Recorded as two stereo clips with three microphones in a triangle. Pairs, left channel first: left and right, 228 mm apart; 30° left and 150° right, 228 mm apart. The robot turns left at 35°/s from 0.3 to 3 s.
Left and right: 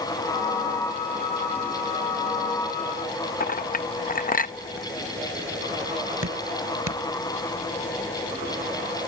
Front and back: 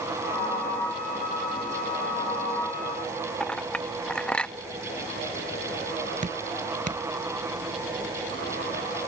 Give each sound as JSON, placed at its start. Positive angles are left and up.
{"t": 3.4, "sound": "a clink", "azimuth_deg": 115}
{"t": 6.2, "sound": "dripping", "azimuth_deg": -95}